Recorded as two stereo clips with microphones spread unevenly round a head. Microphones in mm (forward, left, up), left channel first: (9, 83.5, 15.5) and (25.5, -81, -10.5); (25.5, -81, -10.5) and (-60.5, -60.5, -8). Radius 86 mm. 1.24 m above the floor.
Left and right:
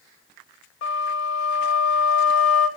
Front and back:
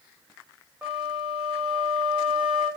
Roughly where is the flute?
Left.